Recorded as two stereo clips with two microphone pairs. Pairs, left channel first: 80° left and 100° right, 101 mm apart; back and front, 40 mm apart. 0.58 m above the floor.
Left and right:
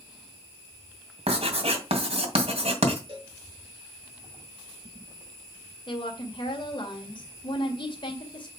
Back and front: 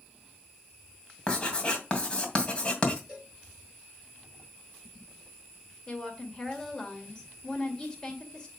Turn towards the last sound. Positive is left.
turn(degrees=110)